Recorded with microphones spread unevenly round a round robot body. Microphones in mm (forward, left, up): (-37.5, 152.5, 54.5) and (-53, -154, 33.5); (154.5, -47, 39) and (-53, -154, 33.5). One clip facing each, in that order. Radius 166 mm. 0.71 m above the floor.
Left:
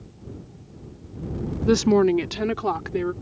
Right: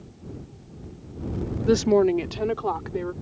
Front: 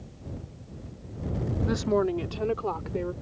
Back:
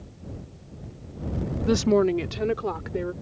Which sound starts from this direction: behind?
A woman speaking, at 1.6 s.